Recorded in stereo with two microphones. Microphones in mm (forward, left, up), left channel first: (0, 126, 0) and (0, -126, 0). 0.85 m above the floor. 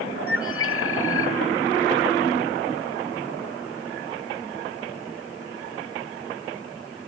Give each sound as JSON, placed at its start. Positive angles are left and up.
{"t": 0.3, "sound": "a bird", "side_deg": 55, "distance_m": 1.0}